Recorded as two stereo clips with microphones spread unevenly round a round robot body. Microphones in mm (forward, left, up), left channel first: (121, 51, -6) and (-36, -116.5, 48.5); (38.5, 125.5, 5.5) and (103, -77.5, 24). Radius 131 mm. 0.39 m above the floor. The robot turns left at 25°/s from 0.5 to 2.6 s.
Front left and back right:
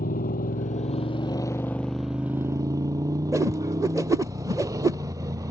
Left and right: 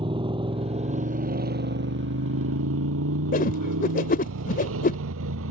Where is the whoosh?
140° left.